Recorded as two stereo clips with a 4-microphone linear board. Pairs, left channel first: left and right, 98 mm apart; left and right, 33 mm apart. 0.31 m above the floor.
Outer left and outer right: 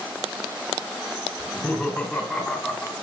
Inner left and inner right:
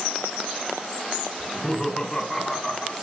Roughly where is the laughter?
Centre.